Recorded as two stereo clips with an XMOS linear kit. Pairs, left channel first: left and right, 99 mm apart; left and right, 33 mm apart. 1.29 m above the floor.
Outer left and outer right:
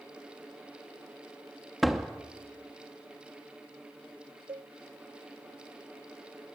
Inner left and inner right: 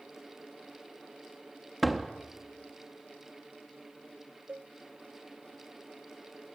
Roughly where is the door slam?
Centre.